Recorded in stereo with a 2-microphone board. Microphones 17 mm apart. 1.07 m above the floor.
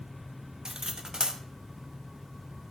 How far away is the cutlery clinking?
About 0.8 m.